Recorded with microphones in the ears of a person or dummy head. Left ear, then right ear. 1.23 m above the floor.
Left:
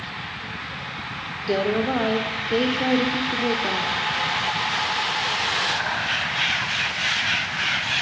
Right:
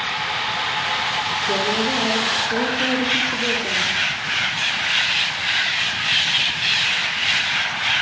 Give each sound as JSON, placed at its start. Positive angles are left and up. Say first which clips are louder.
{"t": 1.5, "sound": "a woman speaking", "louder": "left 2 dB", "side_deg": 60, "distance_m": 3.0}